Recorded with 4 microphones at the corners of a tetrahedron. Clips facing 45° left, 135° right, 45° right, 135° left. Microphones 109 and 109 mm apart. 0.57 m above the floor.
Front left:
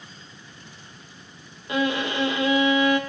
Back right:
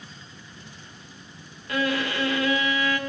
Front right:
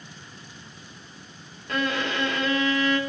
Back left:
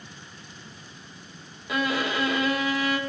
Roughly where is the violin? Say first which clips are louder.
Front left 2 dB, even; ahead left.